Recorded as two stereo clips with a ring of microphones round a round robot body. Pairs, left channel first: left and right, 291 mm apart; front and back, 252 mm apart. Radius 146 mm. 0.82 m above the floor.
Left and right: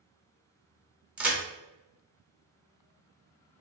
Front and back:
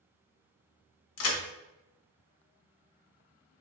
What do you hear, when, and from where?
1.2 s a crack: 5° right, 0.6 m